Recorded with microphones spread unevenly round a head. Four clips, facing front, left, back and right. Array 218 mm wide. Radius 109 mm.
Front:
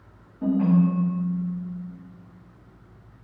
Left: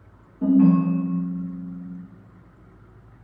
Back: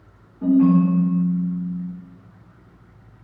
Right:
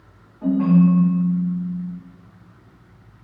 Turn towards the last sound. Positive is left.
turn(degrees=105)